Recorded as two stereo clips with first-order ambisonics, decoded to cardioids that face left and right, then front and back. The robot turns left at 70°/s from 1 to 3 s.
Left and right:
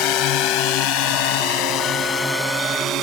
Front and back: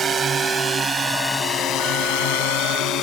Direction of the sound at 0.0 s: 115° left.